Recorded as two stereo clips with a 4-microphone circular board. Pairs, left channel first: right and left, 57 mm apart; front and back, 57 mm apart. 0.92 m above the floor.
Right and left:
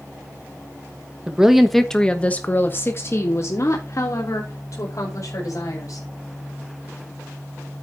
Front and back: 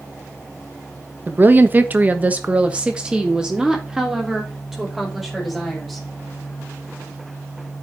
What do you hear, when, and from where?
1.3 s a woman speaking: 155° left, 1.1 m; by 6.1 s 90° right, 3 m